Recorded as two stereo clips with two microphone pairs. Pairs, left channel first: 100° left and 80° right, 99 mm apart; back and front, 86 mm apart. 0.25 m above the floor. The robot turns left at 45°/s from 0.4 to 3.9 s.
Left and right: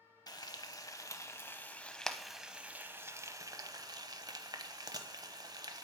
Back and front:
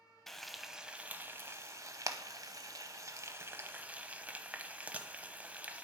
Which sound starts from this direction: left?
Frying, at 0.3 s.